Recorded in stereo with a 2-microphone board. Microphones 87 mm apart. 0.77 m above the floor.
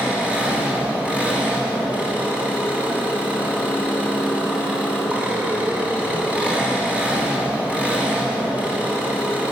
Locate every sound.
0.0 s an engine running: 15° right (ahead or behind), 3 m